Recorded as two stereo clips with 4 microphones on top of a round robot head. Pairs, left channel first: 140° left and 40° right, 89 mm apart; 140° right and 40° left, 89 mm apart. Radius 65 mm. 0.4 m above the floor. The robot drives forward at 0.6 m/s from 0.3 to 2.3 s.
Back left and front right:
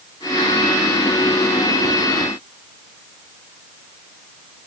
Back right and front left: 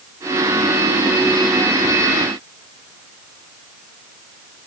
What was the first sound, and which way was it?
Only background noise.